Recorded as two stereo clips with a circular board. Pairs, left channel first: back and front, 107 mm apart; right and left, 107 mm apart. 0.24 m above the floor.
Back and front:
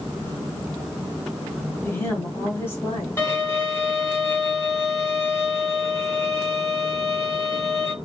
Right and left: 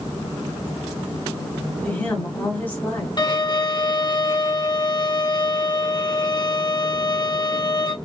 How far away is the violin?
About 1.8 m.